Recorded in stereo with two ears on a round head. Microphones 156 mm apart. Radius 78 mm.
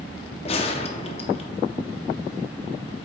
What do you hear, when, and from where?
0.5 s a gunshot: 35° left (ahead or behind), 0.6 m